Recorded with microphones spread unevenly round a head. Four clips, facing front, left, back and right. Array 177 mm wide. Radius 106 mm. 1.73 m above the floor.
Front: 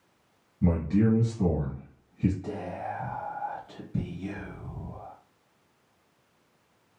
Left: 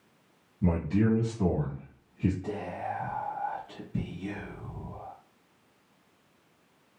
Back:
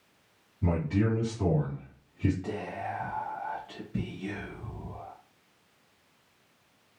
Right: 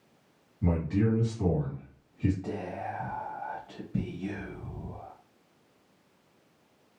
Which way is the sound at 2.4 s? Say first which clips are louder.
Left 1 dB, front 1 dB; 60° right.